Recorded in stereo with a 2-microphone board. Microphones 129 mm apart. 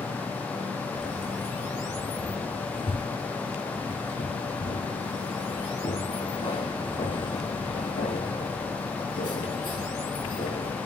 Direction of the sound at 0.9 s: 40° left (ahead or behind).